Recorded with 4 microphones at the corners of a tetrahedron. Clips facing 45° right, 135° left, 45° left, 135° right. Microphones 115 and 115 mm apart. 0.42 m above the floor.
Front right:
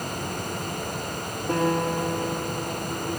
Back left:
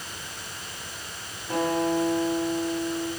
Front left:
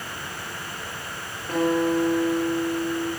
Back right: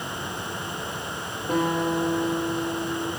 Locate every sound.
1.5 s a guitar: 65° right, 8 m